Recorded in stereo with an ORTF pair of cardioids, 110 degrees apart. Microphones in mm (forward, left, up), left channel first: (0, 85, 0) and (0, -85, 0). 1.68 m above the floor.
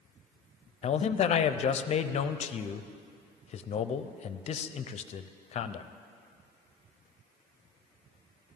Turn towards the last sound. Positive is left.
turn(degrees=40)